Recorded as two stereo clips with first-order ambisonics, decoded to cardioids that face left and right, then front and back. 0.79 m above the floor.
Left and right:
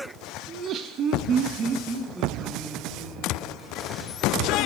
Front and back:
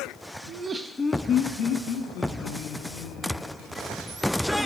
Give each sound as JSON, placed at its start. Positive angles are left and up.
{"t": 0.5, "sound": "laughter", "azimuth_deg": -145, "distance_m": 0.7}